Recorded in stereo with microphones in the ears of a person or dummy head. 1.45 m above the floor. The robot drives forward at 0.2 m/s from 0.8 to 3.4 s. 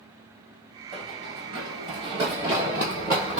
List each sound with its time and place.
0.9 s running footsteps: 30° right (ahead or behind), 2.5 m; by 3.4 s 5° right (ahead or behind), 1.5 m